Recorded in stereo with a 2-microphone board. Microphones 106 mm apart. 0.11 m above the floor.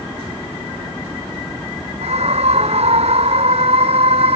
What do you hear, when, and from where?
2.0 s a scream: 75° right (ahead or behind); by 4.4 s 70° right (ahead or behind)